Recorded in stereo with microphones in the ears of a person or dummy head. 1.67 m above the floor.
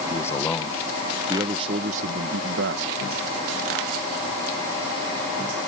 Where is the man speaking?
25° left (ahead or behind); by 3.0 s 70° right (ahead or behind).